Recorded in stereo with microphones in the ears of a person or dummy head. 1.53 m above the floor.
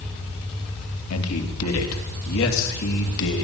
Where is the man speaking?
85° left, 3 m; by 3.4 s 70° left (ahead or behind), 3.5 m.